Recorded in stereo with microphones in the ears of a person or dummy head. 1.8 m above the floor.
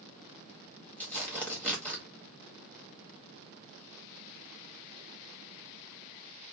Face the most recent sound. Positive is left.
turn(degrees=10)  # may be behind; listen again after turning